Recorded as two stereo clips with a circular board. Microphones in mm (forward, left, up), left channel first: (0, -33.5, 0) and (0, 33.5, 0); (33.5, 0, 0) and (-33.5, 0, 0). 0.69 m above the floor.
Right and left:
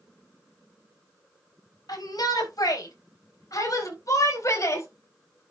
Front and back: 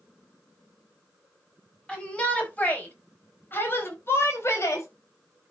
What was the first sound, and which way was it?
A shout, 75° right.